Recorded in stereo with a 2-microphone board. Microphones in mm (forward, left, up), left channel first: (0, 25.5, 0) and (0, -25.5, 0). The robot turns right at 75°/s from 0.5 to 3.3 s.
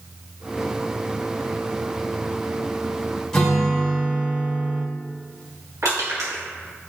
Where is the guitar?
10° left (ahead or behind), 1.1 m.